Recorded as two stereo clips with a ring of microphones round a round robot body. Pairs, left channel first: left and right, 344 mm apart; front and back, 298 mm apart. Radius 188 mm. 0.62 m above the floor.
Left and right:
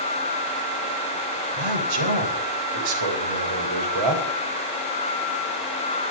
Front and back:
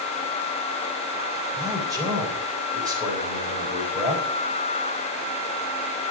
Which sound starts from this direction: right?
A man speaking, at 1.6 s.